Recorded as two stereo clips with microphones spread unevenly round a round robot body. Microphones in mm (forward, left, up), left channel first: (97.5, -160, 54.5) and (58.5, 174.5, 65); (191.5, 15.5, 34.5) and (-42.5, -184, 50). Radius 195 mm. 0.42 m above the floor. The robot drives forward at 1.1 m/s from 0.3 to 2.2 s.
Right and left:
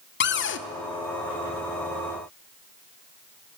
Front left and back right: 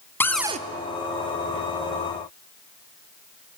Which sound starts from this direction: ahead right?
A cupboard door, at 0.2 s.